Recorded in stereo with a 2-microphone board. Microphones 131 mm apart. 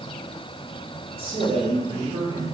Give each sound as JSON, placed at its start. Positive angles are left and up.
{"t": 1.2, "sound": "a man speaking", "side_deg": -45, "distance_m": 2.0}